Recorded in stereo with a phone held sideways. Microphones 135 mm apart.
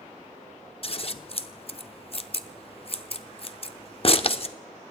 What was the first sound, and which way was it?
Scissors, 45° left (ahead or behind).